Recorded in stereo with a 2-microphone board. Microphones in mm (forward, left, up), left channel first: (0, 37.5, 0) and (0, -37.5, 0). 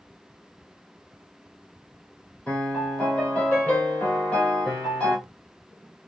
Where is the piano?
15° left (ahead or behind), 2.5 m.